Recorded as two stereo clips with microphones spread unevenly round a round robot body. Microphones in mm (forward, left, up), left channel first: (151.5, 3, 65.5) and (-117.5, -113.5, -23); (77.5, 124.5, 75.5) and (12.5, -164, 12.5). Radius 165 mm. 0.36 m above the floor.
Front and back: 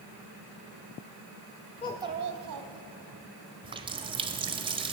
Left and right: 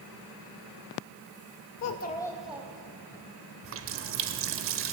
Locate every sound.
1.8 s a child speaking: 95° left, 0.5 m; by 3.2 s 175° right, 2 m
3.6 s a running tap: 100° right, 0.8 m